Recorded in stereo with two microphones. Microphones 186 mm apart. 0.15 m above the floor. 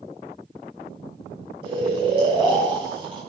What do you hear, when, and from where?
1.6 s snoring: 25° right (ahead or behind), 5 m